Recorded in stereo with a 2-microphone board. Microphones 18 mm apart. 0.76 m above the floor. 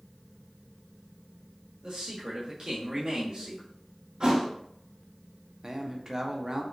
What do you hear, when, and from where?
1.8 s a man speaking: 45° right (ahead or behind), 1.2 m
4.2 s a thud: 50° right (ahead or behind), 1.0 m
5.6 s a man speaking: 30° right (ahead or behind), 0.6 m